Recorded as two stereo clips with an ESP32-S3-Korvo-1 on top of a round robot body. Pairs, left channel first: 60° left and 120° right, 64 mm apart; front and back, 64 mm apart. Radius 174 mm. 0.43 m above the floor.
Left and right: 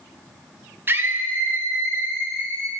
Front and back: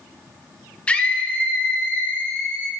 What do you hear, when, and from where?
0.9 s a scream: 70° right, 1.8 m